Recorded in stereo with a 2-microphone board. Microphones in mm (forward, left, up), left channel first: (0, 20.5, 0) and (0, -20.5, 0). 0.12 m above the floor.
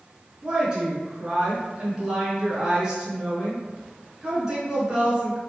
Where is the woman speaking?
20° right (ahead or behind), 1.1 m.